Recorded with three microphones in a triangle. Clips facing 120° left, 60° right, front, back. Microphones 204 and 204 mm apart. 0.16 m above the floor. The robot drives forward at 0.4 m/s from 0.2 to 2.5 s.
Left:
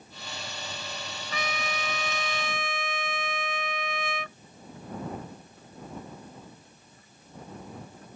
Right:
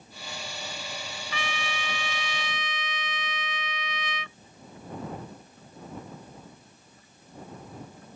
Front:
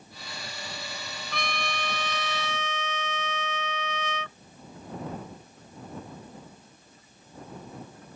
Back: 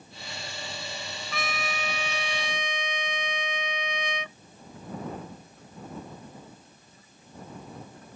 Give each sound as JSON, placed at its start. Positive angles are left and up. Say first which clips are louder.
{"t": 1.3, "sound": "a trumpet", "louder": "left 3 dB, even", "azimuth_deg": 95}